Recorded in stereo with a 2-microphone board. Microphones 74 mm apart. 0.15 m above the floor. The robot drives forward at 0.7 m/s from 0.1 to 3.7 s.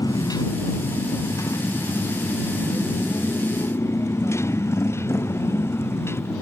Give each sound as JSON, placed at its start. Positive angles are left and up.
{"t": 0.0, "sound": "a motorcycle", "side_deg": 55}